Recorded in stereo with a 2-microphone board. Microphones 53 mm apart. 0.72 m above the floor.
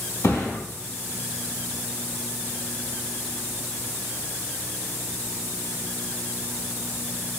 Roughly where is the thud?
Left.